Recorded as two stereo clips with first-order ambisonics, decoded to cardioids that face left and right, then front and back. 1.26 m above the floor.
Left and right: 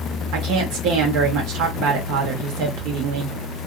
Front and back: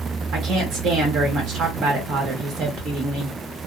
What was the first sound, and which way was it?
A woman speaking, 125° right.